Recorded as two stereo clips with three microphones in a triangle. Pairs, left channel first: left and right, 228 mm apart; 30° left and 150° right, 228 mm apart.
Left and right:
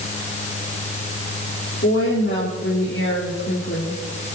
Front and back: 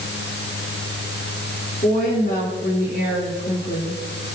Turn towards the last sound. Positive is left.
turn(degrees=55)